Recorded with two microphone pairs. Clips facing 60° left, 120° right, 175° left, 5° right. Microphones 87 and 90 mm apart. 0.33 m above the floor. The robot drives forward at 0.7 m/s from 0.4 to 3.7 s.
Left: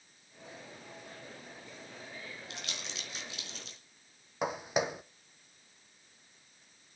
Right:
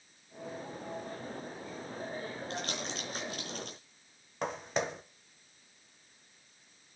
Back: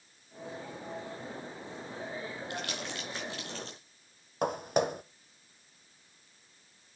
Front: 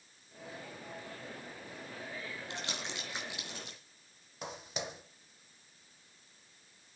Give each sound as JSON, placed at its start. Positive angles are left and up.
{"t": 2.5, "sound": "crumpling", "azimuth_deg": -70, "distance_m": 4.5}
{"t": 4.4, "sound": "footsteps", "azimuth_deg": 140, "distance_m": 0.9}